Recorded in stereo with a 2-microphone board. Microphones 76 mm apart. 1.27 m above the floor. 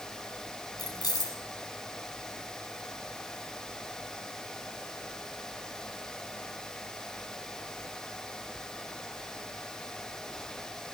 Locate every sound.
0.8 s keys jangling: 55° left (ahead or behind), 7.5 m